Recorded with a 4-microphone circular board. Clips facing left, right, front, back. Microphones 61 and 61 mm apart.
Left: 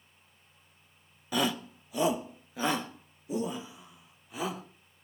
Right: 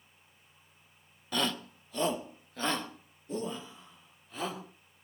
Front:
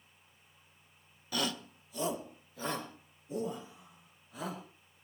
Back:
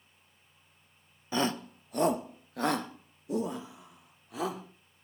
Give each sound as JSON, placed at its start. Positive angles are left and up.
{"t": 1.3, "sound": "a shout", "azimuth_deg": 160, "distance_m": 0.8}